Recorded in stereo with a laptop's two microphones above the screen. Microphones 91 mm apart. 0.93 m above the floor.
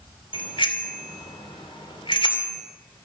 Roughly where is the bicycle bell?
Left.